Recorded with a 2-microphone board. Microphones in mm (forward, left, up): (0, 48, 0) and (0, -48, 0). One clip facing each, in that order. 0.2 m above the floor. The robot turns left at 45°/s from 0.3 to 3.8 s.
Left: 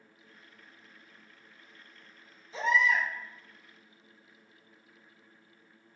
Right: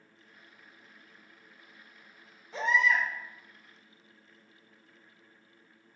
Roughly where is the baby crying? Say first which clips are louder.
Even; right.